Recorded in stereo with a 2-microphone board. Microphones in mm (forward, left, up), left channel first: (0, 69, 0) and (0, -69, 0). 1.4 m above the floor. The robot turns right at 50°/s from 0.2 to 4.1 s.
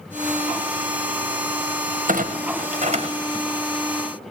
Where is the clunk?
80° right, 1.3 m; by 3.5 s 30° right (ahead or behind), 1.3 m.